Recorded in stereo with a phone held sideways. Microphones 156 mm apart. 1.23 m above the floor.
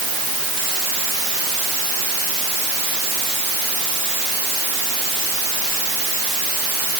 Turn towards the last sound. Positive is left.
No sound to turn to.